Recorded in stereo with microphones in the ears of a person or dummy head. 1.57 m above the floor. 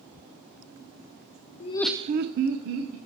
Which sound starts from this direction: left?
Laughter, at 1.6 s.